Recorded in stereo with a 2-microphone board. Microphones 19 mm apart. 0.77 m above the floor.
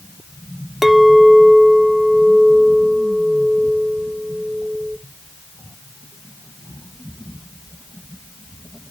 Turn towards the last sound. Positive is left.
turn(degrees=-10)  # may be behind; listen again after turning